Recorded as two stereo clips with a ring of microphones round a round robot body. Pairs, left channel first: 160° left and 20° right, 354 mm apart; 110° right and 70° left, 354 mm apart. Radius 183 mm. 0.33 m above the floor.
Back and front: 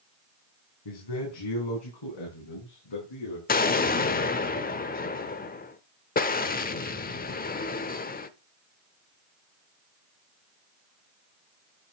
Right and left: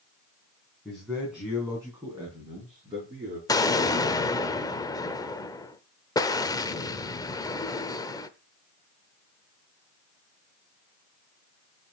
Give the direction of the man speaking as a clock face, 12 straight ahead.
7 o'clock.